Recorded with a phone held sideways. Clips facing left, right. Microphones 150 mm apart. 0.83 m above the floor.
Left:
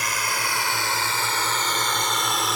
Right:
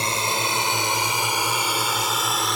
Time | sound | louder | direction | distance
0.0 | a drone | right 3 dB | 25° right (ahead or behind) | ?